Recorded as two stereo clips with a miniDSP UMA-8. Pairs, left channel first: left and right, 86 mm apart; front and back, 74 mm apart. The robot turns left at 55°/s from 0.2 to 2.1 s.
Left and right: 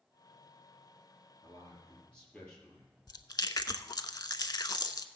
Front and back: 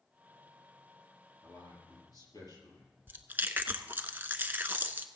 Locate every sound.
1.4 s a man speaking: 50° left, 4.5 m; by 2.9 s 10° left, 4.5 m
3.1 s chewing: 125° left, 0.6 m